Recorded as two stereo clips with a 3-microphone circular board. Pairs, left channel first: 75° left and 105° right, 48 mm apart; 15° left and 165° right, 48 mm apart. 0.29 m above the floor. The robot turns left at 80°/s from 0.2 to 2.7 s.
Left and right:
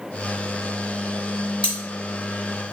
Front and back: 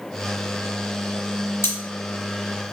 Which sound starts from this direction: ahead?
Cutlery clinking, at 1.6 s.